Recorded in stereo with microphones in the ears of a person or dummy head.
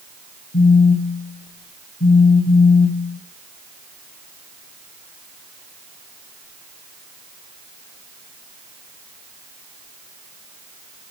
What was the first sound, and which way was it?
A phone buzzing, 55° left (ahead or behind).